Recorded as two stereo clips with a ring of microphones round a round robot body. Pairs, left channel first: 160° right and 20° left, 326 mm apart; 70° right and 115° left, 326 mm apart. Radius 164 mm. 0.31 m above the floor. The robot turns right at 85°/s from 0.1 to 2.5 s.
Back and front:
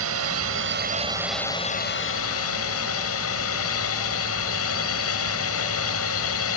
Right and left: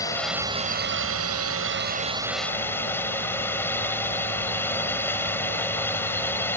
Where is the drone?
10° left; by 6.6 s 150° right.